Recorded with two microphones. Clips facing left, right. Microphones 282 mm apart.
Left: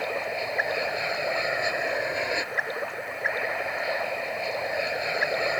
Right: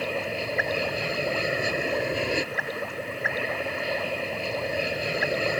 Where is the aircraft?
35° right (ahead or behind).